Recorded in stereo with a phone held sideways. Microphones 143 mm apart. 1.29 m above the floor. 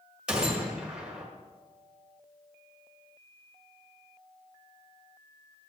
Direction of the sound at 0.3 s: 5° right (ahead or behind).